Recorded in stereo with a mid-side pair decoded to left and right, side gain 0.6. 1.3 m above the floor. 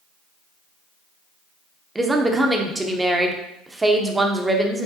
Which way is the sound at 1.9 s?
15° right.